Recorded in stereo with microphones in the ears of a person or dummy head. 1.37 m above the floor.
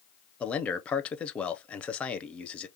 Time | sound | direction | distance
0.4 | a man speaking | 10° left (ahead or behind) | 0.6 m